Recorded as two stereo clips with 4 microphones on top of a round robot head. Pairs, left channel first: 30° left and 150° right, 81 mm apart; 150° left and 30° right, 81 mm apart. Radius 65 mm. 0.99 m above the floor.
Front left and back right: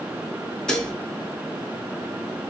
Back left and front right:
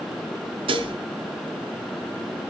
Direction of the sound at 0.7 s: 45° right.